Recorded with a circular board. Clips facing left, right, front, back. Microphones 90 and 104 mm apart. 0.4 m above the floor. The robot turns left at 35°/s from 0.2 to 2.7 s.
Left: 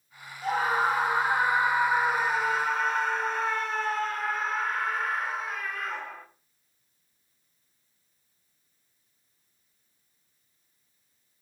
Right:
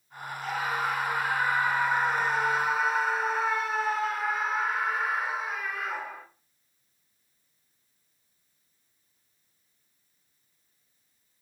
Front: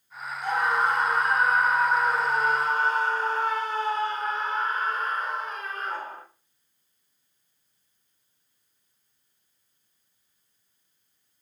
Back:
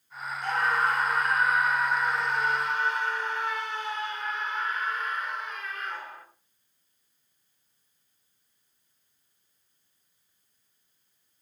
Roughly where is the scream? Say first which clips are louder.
Left 5 dB, front 2 dB; left.